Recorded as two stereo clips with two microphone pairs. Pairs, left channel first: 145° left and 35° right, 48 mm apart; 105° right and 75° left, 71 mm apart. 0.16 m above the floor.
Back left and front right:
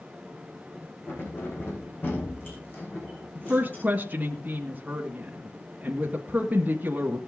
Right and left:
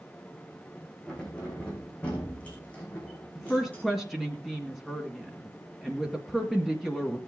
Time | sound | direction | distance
1.1 | keys jangling | straight behind | 6 m
3.4 | a woman speaking | 15° right | 1.9 m